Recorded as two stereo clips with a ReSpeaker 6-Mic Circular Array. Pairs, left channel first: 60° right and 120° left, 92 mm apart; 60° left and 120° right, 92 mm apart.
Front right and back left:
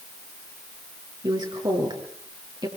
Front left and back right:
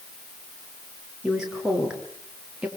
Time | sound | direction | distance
1.2 | a woman speaking | 155° left | 6.5 m